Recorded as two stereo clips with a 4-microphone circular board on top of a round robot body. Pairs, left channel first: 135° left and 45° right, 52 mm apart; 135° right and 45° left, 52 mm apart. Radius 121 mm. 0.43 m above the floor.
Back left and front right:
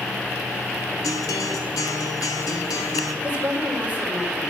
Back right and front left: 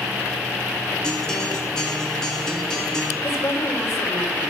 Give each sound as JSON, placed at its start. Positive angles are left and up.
{"t": 1.0, "sound": "a guitar", "azimuth_deg": 145, "distance_m": 1.6}
{"t": 3.2, "sound": "a woman speaking", "azimuth_deg": -105, "distance_m": 2.0}